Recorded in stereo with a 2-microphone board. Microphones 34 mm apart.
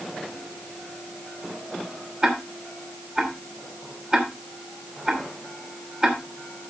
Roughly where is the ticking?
Right.